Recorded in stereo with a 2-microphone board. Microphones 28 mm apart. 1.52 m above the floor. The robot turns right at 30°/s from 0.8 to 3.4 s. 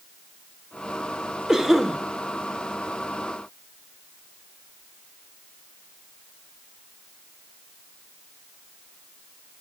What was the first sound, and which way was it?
A cough, 20° right (ahead or behind).